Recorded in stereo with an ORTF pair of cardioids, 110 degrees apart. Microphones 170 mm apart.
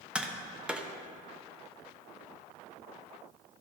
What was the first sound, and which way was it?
Tapping, 5° right.